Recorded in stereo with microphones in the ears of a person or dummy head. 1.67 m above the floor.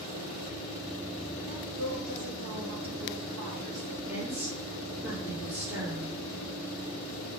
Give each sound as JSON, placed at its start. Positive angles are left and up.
{"t": 1.5, "sound": "a woman speaking", "side_deg": -75, "distance_m": 2.5}
{"t": 4.1, "sound": "a woman speaking", "side_deg": -10, "distance_m": 2.5}